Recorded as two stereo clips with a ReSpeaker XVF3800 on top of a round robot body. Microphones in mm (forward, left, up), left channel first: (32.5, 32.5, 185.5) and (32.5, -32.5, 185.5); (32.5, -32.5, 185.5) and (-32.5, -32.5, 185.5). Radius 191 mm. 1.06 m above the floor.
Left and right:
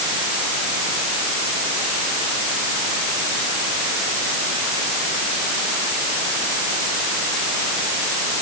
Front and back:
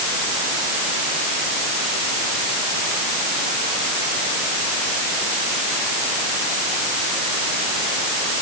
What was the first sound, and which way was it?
Only background noise.